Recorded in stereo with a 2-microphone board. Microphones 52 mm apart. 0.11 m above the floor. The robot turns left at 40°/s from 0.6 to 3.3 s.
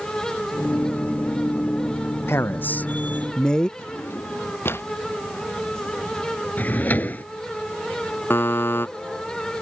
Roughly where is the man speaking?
Ahead left.